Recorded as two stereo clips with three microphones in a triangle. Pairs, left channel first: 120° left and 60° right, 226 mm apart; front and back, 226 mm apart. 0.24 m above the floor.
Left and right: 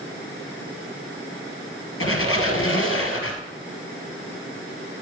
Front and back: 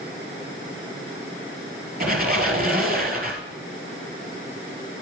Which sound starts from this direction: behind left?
A squeak, at 2.0 s.